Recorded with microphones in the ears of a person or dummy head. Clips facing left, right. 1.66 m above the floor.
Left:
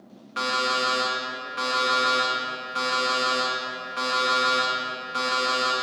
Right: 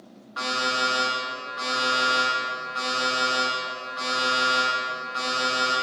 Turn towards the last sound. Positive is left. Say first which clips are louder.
# left 2 dB
turn(degrees=35)  # may be behind; listen again after turning